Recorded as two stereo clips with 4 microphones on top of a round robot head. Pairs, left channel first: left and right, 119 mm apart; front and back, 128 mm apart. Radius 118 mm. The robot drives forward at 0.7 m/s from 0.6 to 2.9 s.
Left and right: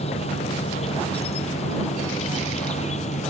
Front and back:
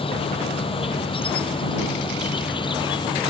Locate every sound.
0.0 s an insect: 45° left; by 3.3 s 50° left